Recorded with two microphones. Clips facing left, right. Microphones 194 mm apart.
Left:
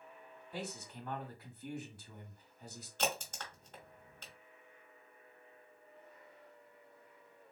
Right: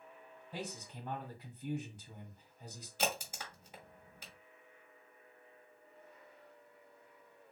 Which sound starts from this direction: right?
A man speaking, at 0.5 s.